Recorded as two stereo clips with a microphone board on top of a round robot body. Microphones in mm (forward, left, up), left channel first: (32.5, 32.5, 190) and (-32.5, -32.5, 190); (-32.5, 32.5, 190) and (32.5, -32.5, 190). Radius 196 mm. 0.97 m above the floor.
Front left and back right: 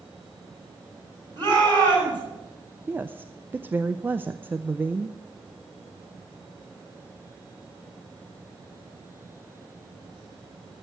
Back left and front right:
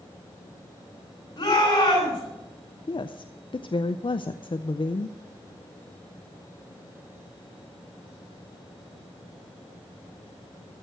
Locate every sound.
1.4 s a shout: straight behind, 8.5 m
2.9 s a woman speaking: 155° left, 0.6 m